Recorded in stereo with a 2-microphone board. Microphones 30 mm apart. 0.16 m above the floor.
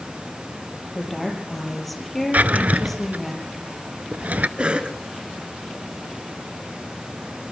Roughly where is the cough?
Right.